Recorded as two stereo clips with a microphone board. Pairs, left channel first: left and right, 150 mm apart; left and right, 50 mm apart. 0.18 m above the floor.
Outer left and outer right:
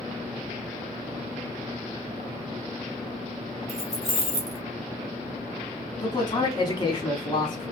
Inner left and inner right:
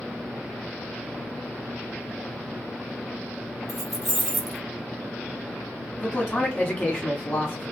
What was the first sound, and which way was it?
Keys jangling, centre (ahead or behind).